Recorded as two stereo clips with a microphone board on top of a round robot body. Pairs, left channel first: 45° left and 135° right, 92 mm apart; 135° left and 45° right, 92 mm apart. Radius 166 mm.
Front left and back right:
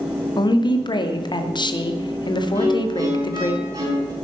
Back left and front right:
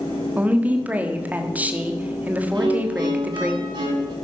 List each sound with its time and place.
0.4 s a woman speaking: 25° left, 1.8 m
2.5 s a violin: 80° right, 4 m